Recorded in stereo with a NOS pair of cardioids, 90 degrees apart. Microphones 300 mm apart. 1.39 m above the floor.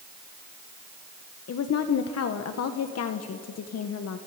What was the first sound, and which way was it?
A woman speaking, 55° left.